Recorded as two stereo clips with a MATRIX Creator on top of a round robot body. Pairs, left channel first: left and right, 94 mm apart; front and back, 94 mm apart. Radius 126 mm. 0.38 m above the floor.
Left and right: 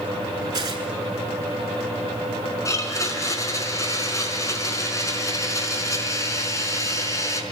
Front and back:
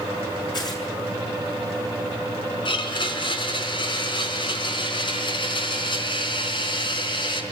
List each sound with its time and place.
0.5 s tearing paper: 45° right, 6.5 m
2.6 s a blender: 35° left, 5 m